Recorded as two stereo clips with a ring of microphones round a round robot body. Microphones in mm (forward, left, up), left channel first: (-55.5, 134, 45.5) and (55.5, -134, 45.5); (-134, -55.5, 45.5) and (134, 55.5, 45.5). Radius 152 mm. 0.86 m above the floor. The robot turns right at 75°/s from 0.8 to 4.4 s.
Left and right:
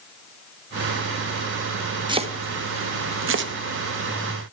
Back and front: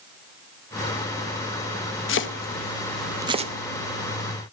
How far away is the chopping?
About 0.8 m.